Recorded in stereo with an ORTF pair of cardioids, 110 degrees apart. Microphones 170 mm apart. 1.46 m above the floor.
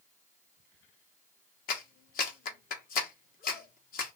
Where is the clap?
55° left, 1.0 m.